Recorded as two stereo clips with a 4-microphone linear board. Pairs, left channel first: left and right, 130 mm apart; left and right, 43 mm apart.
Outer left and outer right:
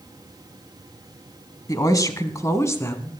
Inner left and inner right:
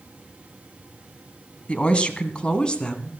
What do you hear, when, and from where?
1.7 s a woman speaking: 30° left (ahead or behind), 1.3 m; by 3.1 s 20° left (ahead or behind), 1.7 m